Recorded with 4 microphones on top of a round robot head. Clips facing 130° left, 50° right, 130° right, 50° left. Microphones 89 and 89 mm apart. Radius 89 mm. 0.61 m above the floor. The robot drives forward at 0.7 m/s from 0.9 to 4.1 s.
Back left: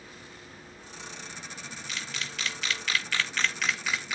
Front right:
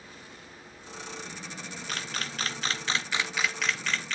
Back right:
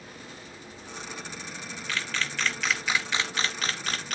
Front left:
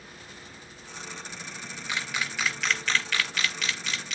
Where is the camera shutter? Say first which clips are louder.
Front right 3 dB, even; 20° right, 1.1 m; by 4.2 s 155° right, 1.0 m.